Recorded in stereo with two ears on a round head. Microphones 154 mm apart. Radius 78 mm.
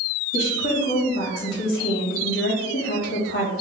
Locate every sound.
0.3 s a woman speaking: 65° left (ahead or behind), 1.8 m